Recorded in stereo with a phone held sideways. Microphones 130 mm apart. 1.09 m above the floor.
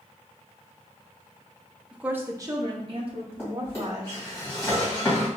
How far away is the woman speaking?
About 0.6 m.